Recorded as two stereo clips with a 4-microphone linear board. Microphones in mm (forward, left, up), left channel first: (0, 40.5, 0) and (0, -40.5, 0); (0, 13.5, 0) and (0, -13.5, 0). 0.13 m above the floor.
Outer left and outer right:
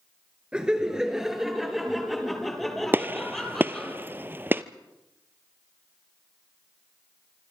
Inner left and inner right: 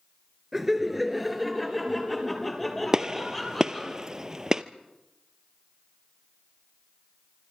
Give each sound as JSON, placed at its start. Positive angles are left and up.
{"t": 0.5, "sound": "laughter", "side_deg": -10, "distance_m": 2.0}
{"t": 2.9, "sound": "a gunshot", "side_deg": -25, "distance_m": 0.8}